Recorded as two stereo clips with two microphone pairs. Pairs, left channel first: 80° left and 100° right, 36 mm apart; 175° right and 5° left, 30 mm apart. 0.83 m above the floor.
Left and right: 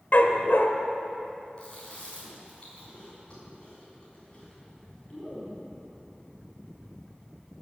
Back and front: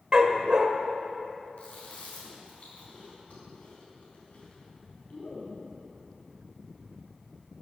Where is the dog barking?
60° left, 0.9 m.